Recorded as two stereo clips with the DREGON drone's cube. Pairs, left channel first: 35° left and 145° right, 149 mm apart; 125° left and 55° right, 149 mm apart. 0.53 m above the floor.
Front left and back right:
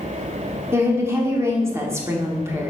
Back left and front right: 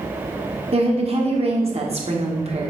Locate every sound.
0.7 s a woman speaking: 80° right, 1.5 m